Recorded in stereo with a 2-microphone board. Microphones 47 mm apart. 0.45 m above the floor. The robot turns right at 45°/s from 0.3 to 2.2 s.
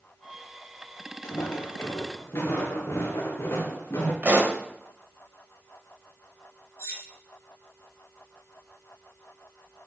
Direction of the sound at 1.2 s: 80° left.